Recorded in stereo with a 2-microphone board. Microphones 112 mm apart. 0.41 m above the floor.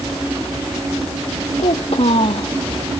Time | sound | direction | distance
1.6 | a child speaking | 60° left (ahead or behind) | ?